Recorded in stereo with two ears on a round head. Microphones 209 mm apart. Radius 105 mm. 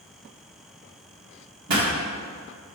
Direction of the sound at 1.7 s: 80° right.